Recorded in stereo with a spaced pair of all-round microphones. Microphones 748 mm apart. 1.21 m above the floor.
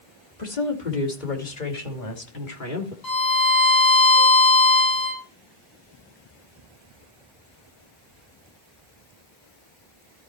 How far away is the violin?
About 3.5 m.